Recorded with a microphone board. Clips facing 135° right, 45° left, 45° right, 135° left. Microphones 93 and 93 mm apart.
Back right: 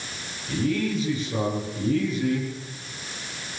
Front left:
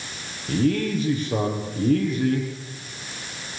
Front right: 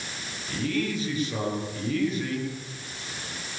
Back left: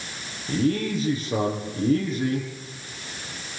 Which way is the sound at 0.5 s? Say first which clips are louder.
Front left 3 dB, back left 5 dB; 80° left.